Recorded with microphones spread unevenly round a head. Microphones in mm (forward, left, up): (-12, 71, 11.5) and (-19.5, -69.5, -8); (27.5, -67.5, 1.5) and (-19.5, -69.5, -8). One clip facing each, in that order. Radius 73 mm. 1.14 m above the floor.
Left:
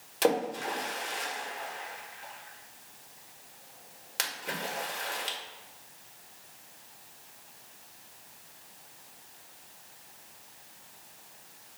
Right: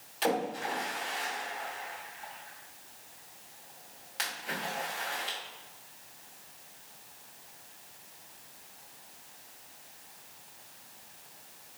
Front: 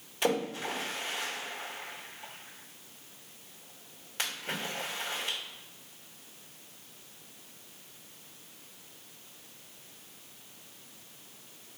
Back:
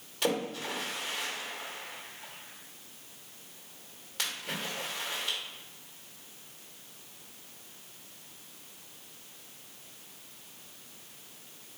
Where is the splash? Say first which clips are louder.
Left 3 dB, front 1 dB; 70° left, 1.2 m.